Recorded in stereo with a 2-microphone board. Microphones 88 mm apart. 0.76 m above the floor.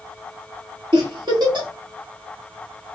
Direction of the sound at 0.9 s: 55° right (ahead or behind).